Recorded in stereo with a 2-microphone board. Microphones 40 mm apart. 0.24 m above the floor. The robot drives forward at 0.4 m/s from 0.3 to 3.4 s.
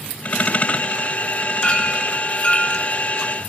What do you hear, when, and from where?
1.6 s a clink: 30° left (ahead or behind), 2.5 m; by 2.8 s 40° left (ahead or behind), 2 m